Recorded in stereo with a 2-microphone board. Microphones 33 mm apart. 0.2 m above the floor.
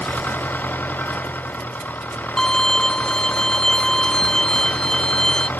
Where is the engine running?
80° left.